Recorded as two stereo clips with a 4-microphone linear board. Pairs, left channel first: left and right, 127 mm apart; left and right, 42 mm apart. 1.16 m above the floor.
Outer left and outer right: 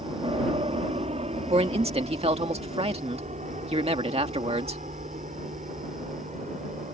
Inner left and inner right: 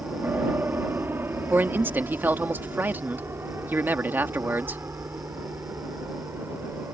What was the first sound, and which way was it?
An aircraft, 50° right (ahead or behind).